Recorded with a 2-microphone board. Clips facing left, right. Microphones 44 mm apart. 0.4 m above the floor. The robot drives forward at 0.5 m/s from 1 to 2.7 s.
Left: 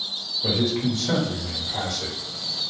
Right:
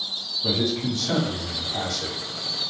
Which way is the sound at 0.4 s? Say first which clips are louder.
Left 1 dB; 30° left (ahead or behind).